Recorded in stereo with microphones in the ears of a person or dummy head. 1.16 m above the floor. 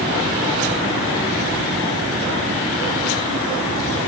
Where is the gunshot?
No gunshot in this recording.